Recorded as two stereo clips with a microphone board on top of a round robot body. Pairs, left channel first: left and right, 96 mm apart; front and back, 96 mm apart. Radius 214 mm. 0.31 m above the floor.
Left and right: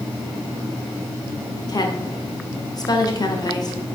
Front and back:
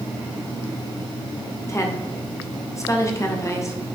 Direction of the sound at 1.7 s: 55° left.